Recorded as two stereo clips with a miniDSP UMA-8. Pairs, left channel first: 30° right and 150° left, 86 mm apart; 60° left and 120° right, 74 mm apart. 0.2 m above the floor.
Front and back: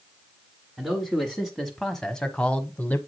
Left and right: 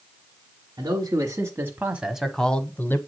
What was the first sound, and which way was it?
A man speaking, 130° right.